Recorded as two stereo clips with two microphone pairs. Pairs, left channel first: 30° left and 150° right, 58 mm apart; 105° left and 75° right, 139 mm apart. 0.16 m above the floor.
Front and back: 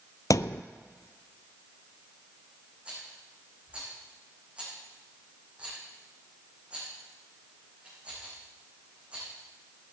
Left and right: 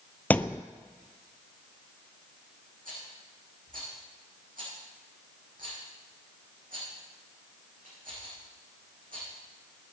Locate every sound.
0.3 s a thud: 30° left, 0.6 m
2.9 s a rattle: 80° right, 7 m